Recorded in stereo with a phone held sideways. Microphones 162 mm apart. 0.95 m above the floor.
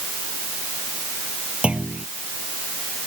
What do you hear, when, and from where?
1.6 s a clunk: 10° right (ahead or behind)